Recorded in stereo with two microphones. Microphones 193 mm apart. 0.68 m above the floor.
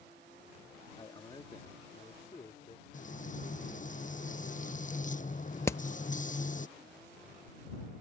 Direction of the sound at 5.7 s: 15° left (ahead or behind).